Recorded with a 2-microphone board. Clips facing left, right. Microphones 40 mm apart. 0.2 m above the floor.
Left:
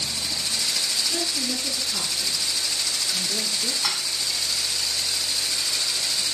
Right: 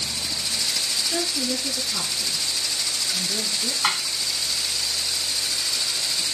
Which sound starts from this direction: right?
Dishes clattering, at 3.8 s.